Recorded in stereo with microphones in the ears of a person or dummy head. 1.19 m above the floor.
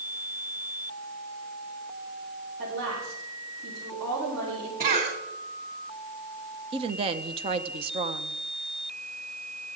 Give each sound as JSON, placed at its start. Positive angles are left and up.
{"t": 2.6, "sound": "a woman speaking", "side_deg": -85, "distance_m": 8.0}
{"t": 4.8, "sound": "a cough", "side_deg": -45, "distance_m": 2.5}
{"t": 6.7, "sound": "a woman speaking", "side_deg": -35, "distance_m": 0.9}